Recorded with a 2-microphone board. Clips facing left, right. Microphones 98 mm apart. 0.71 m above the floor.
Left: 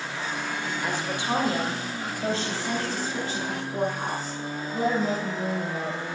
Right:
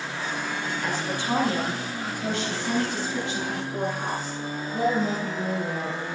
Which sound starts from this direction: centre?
A woman speaking, at 0.8 s.